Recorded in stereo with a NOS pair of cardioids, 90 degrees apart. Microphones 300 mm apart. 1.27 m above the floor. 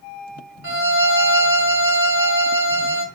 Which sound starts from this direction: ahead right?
A violin, at 0.6 s.